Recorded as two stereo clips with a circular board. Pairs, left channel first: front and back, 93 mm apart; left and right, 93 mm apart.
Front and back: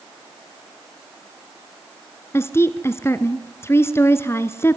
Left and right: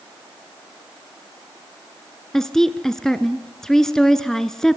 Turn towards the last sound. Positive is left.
turn(degrees=10)